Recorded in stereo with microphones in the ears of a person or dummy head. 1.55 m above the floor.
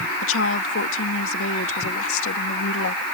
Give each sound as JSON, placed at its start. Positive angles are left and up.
{"t": 0.2, "sound": "a woman speaking", "side_deg": 85}